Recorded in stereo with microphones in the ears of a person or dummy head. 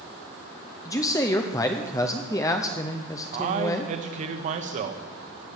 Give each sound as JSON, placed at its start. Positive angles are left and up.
{"t": 0.8, "sound": "a man speaking", "side_deg": 15, "distance_m": 0.7}
{"t": 3.3, "sound": "a man speaking", "side_deg": -45, "distance_m": 1.4}